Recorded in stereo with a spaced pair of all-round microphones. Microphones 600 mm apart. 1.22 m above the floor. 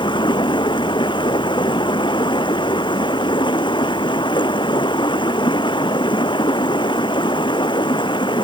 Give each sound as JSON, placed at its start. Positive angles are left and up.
{"t": 0.0, "sound": "running water", "side_deg": 10}